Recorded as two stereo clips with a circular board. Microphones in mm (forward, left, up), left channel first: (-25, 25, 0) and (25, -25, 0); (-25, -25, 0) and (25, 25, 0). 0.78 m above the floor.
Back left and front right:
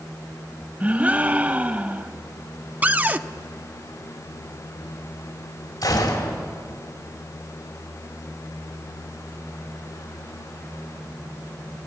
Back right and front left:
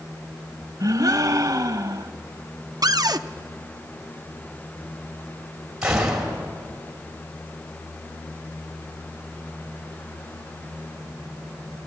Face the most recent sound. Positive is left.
turn(degrees=125)